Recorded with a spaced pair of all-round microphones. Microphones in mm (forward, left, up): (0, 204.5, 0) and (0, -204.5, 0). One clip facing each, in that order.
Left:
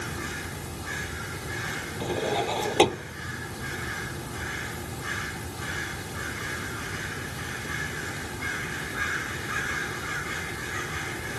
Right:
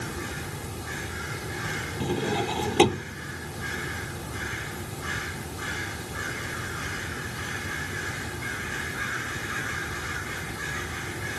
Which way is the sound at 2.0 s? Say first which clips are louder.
Right 1 dB; 25° right (ahead or behind).